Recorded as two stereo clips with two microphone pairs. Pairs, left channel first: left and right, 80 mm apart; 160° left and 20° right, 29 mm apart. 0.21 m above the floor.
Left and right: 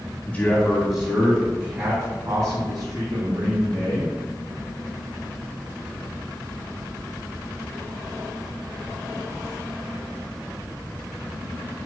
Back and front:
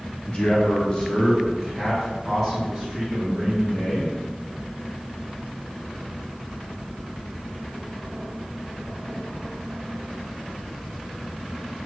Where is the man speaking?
140° left, 1.2 m; by 4.2 s 100° right, 2.5 m.